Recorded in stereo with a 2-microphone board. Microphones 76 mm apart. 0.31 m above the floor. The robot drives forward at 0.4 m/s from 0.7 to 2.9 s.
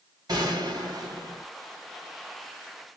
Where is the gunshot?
55° right (ahead or behind), 2 m.